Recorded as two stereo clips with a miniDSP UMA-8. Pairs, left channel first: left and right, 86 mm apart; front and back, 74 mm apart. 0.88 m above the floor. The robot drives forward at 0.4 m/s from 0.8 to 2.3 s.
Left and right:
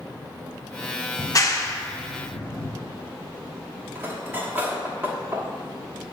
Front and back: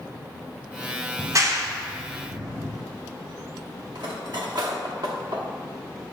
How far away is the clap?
About 0.6 m.